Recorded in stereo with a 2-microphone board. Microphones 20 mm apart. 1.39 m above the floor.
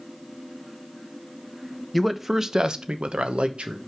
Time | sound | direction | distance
1.9 | a man speaking | 5° right (ahead or behind) | 0.9 m